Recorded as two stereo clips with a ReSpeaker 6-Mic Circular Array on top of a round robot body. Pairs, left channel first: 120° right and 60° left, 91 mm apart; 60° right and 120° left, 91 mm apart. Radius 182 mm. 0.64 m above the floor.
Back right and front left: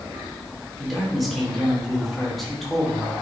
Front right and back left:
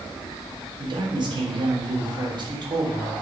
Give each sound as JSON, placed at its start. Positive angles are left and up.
{"t": 0.8, "sound": "a man speaking", "azimuth_deg": 150, "distance_m": 3.0}